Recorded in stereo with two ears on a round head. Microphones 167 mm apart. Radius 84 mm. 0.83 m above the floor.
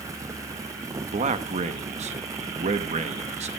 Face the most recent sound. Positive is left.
turn(degrees=-35)  # may be behind; listen again after turning